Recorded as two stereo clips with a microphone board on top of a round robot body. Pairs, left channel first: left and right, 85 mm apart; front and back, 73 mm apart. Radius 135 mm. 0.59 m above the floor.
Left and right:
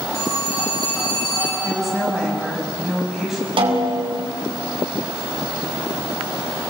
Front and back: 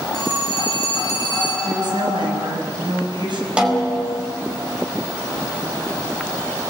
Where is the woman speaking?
Straight behind, 6 m.